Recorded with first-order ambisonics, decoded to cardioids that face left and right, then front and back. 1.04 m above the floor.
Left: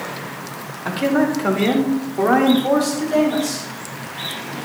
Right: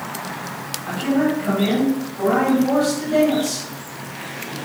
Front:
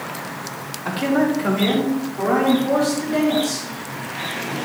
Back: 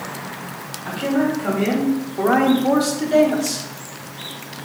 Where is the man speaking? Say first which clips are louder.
Left 2 dB, front 1 dB; 65° left, 2.5 m; by 3.7 s 170° left, 3 m.